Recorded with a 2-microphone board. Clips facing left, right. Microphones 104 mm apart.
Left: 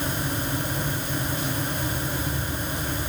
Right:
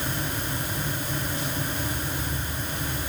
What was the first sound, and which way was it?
Only background noise.